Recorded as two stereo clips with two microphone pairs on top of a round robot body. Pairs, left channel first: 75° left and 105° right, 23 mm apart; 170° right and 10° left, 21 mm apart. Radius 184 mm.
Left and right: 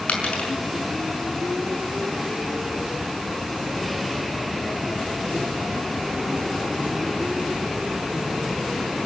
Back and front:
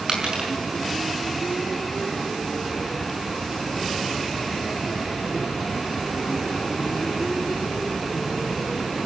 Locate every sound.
0.1 s a dropped coin: 60° left, 6 m